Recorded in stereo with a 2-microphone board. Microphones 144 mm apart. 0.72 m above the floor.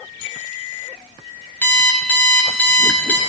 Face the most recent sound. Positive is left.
turn(degrees=15)  # may be behind; listen again after turning